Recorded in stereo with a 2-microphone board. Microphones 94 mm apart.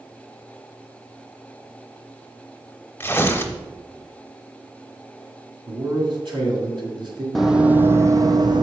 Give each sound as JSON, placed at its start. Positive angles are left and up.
{"t": 3.0, "sound": "tearing paper", "side_deg": 25, "distance_m": 0.7}
{"t": 5.7, "sound": "a man speaking", "side_deg": -65, "distance_m": 2.0}
{"t": 7.3, "sound": "running footsteps", "side_deg": 0, "distance_m": 0.6}